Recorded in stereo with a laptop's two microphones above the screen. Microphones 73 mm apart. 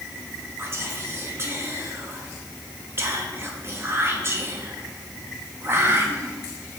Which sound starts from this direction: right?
Whispering, at 0.6 s.